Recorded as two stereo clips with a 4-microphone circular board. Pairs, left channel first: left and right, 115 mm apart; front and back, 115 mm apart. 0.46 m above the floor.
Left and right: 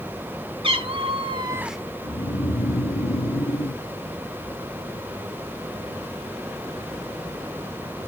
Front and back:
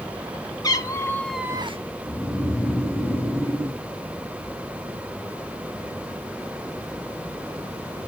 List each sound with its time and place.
0.6 s a cat meowing: 55° right, 1.4 m; by 1.8 s straight behind, 0.7 m
2.0 s snoring: 65° left, 1.0 m